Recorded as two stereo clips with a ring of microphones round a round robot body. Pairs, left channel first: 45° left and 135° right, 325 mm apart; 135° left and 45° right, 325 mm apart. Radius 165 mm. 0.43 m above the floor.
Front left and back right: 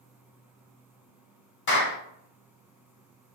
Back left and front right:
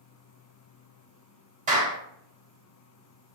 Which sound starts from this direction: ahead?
A clap, at 1.7 s.